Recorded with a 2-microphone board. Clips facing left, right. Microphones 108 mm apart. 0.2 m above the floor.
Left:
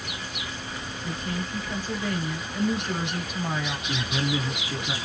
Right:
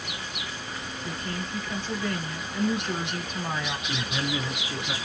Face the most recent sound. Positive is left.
turn(degrees=10)  # may be behind; listen again after turning